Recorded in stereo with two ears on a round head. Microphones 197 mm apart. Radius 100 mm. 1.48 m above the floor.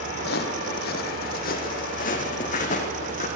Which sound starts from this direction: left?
Footsteps, at 0.2 s.